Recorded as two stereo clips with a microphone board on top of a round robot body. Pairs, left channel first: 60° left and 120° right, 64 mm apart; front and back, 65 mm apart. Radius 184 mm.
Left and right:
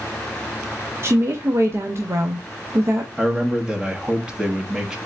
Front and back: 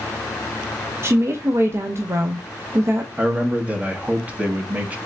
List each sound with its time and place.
1.0 s a woman speaking: 150° right, 0.9 m
3.2 s a man speaking: 175° right, 1.2 m